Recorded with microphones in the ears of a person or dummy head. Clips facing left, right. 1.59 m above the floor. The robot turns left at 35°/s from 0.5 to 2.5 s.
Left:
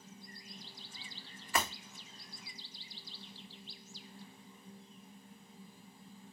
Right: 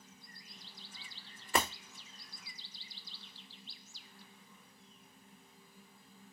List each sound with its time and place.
1.5 s breaking glass: 25° right (ahead or behind), 0.8 m